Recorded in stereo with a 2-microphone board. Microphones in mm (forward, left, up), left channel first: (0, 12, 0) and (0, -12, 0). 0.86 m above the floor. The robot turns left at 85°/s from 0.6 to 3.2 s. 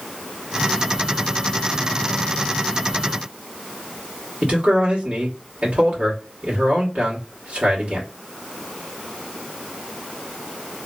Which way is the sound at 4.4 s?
65° right (ahead or behind).